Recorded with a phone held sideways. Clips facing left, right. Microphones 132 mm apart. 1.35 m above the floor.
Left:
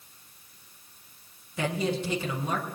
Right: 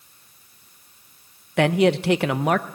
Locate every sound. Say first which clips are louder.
1.6 s a man speaking: right 11 dB; 75° right (ahead or behind), 1.1 m